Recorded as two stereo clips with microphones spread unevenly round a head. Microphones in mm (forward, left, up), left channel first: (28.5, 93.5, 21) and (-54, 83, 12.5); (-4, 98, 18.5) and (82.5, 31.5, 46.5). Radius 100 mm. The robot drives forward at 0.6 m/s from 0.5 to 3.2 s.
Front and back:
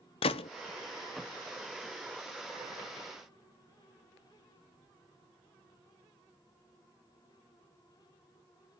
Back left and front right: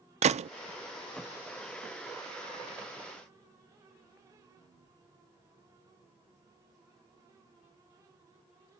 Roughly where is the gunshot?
Ahead.